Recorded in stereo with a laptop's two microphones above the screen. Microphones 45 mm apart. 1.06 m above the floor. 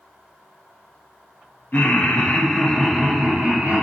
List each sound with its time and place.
1.7 s laughter: 45° left (ahead or behind), 0.8 m; by 3.8 s 25° right (ahead or behind), 0.9 m